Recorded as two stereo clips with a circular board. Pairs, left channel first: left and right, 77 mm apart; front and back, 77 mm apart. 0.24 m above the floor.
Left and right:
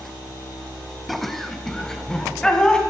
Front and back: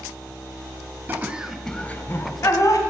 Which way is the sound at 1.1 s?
Straight behind.